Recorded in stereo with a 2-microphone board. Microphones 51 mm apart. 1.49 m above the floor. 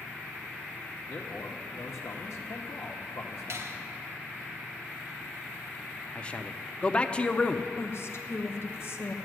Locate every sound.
1.1 s a man speaking: 70° left (ahead or behind), 1.1 m
3.5 s a finger snap: 55° right (ahead or behind), 1.0 m
6.2 s a man speaking: 20° left (ahead or behind), 0.6 m
7.8 s a woman speaking: 55° left (ahead or behind), 1.2 m